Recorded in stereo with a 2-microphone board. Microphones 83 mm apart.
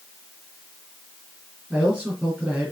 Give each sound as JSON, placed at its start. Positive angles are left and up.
{"t": 1.7, "sound": "a man speaking", "side_deg": -15, "distance_m": 4.0}